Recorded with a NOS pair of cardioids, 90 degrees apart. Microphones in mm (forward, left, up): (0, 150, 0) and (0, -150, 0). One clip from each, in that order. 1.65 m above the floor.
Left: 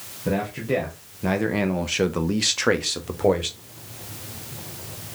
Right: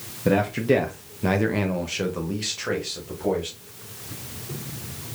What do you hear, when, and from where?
0.2 s a man speaking: 40° right, 1.1 m; by 3.6 s 70° left, 1.3 m